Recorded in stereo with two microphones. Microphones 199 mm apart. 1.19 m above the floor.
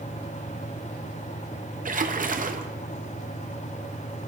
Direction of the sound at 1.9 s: 45° right (ahead or behind).